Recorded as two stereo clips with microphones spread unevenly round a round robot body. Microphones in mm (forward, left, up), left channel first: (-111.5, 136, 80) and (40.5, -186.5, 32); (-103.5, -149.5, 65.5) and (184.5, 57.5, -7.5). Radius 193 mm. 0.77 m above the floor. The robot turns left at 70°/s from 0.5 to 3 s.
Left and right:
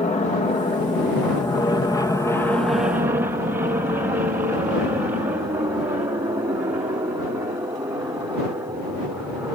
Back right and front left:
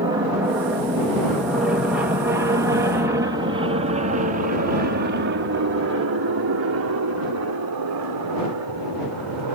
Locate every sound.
0.0 s an aircraft: 55° left; by 9.6 s 15° left